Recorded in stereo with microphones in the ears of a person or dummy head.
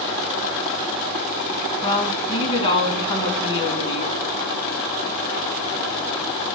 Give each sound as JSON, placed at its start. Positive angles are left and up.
{"t": 1.8, "sound": "a woman speaking", "side_deg": 30, "distance_m": 1.8}